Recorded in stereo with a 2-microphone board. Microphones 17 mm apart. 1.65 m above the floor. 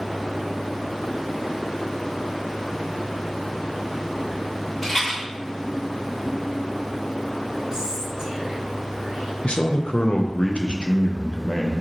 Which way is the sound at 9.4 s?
75° left (ahead or behind).